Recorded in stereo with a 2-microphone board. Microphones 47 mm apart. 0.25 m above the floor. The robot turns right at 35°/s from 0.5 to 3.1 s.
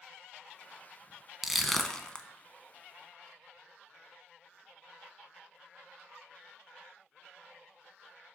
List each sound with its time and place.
1.4 s crushing: centre (ahead or behind), 0.7 m; by 2.2 s 25° left (ahead or behind), 0.7 m